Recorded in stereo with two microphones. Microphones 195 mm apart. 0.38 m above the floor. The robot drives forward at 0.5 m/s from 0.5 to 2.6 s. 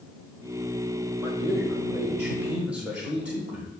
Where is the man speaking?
10° right (ahead or behind), 1.1 m; by 3.7 s 5° right (ahead or behind), 1.6 m.